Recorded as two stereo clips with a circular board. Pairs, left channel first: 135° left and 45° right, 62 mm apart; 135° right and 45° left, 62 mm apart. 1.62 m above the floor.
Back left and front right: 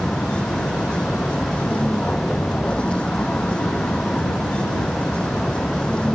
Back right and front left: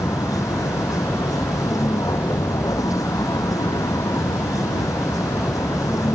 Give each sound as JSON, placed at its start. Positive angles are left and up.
{"t": 0.0, "sound": "a vehicle", "azimuth_deg": -155}